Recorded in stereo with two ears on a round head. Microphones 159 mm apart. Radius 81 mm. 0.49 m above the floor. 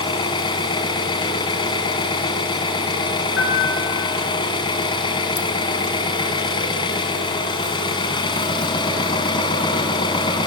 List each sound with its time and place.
0.0 s an engine running: 30° left (ahead or behind), 3.5 m
3.4 s a piano: 85° left, 5 m